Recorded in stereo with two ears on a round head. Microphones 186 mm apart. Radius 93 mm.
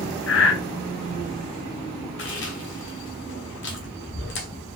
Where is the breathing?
65° left (ahead or behind), 1.0 m.